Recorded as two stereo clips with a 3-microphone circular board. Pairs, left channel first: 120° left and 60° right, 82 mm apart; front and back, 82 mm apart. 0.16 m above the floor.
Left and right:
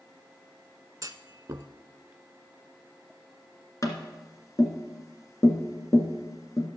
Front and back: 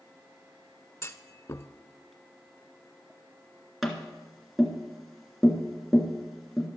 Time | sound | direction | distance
1.0 | a clunk | 40° right | 0.5 m
3.8 | tapping | 90° left | 1.6 m